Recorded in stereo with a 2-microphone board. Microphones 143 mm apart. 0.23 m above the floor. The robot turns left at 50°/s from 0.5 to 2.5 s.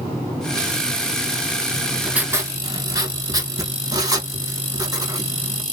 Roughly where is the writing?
Ahead.